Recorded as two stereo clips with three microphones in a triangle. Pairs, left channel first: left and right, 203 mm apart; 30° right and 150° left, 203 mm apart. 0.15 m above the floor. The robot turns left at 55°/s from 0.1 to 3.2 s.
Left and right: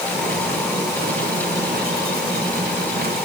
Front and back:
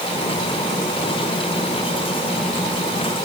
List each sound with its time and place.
Only background noise.